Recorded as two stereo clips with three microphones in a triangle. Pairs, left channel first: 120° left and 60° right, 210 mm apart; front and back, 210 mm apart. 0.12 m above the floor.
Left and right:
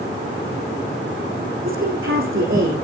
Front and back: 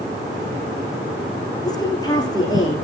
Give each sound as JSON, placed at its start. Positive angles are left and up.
{"t": 1.6, "sound": "a woman speaking", "azimuth_deg": -70, "distance_m": 6.0}